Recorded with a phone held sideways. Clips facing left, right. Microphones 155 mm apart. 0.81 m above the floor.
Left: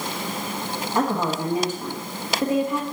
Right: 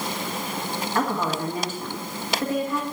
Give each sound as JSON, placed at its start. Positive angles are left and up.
{"t": 0.9, "sound": "a woman speaking", "side_deg": 20, "distance_m": 1.2}